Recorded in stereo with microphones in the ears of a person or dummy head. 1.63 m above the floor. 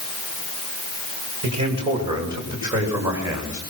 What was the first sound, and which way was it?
A man speaking, 35° right (ahead or behind).